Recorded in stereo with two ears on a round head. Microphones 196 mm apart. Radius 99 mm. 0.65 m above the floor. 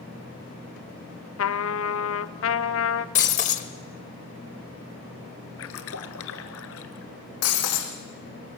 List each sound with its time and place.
1.4 s a trumpet: 65° left (ahead or behind), 0.7 m
3.1 s breaking glass: 35° left (ahead or behind), 1.2 m
5.6 s a splash: 70° left (ahead or behind), 1.5 m
7.4 s breaking glass: 80° left, 4 m